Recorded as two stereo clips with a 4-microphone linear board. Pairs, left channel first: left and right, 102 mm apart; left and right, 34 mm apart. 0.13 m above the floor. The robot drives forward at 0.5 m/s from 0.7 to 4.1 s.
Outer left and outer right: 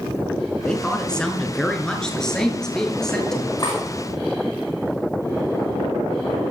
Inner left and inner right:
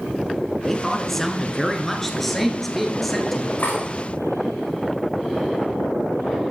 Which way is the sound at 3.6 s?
50° left (ahead or behind).